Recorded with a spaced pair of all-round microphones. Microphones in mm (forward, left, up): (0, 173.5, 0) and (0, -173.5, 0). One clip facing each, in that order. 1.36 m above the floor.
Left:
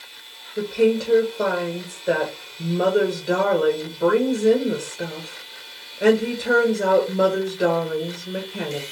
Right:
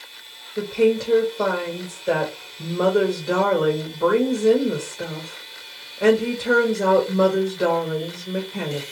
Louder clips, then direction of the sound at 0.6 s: Even; centre (ahead or behind).